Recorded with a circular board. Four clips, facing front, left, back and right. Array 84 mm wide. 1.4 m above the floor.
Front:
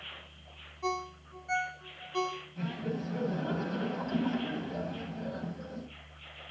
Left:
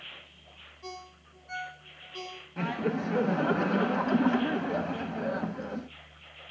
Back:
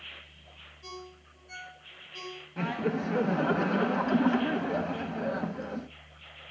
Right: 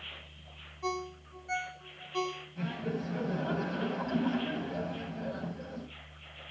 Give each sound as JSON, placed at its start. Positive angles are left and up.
{"t": 0.8, "sound": "a ringtone", "azimuth_deg": -30, "distance_m": 1.9}
{"t": 2.6, "sound": "laughter", "azimuth_deg": 135, "distance_m": 1.0}